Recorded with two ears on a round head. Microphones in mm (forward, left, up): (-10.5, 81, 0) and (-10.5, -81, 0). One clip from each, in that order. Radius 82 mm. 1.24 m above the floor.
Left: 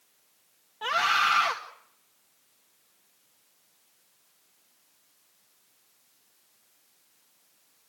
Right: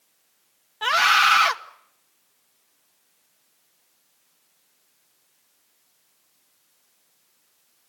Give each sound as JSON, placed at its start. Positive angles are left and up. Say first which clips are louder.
{"t": 0.8, "sound": "a scream", "louder": "right 7 dB", "side_deg": -55, "distance_m": 1.8}